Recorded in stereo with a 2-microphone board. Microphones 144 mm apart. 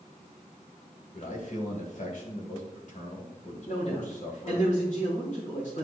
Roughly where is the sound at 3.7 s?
Left.